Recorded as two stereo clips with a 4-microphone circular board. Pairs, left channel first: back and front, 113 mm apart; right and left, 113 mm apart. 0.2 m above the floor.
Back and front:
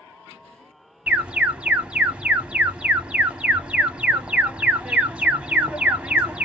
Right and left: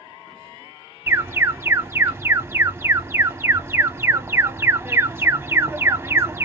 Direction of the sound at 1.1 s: 65° left.